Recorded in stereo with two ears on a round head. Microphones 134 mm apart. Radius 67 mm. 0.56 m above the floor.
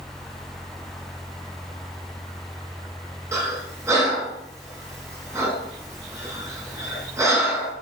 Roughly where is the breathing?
Right.